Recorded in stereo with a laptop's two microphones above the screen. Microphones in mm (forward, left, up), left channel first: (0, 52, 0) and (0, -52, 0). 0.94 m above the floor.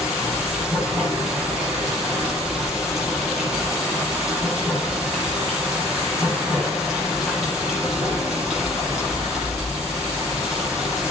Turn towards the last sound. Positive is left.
turn(degrees=-5)  # may be behind; listen again after turning